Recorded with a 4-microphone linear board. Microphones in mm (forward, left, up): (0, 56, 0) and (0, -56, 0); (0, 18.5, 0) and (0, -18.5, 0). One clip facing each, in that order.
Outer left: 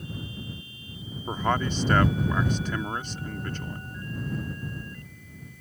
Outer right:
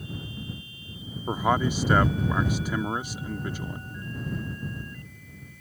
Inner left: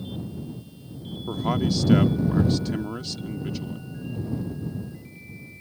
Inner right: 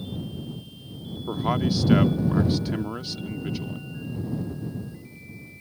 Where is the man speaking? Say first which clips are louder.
Outer right 2 dB, even; 10° right (ahead or behind).